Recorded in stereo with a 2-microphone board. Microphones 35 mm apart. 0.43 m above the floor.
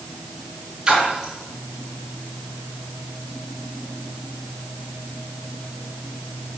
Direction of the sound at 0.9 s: 15° right (ahead or behind).